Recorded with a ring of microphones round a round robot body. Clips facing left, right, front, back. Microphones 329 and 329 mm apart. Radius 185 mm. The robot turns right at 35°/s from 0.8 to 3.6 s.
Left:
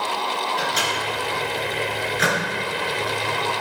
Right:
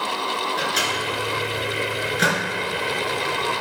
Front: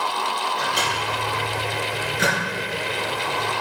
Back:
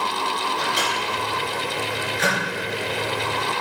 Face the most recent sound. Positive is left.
turn(degrees=0)